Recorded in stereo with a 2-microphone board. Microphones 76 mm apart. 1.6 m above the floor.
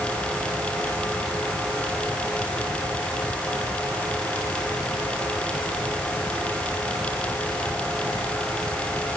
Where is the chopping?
No chopping in this recording.